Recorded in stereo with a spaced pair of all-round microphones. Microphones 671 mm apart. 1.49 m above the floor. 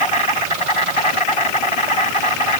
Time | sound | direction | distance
0.0 | an insect | 45° left (ahead or behind) | ?